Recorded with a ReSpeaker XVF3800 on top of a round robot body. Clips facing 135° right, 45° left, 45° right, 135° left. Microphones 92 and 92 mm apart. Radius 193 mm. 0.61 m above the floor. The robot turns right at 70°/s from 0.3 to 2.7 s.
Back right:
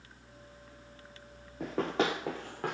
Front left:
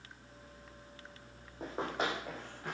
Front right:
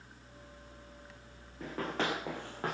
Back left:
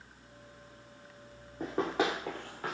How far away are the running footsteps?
About 0.7 m.